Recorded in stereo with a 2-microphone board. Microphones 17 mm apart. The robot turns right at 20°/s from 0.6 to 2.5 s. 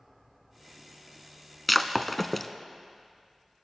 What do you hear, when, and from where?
1.7 s breaking glass: centre (ahead or behind), 0.5 m; by 2.5 s 15° left (ahead or behind), 0.5 m